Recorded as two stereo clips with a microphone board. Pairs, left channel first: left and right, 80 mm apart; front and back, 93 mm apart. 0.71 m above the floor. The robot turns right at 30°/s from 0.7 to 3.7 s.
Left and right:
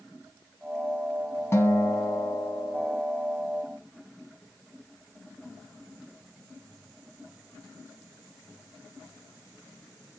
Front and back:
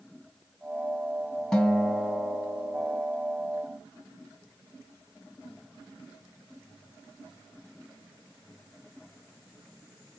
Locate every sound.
1.5 s a guitar: 80° left, 1.2 m; by 3.0 s 125° left, 1.2 m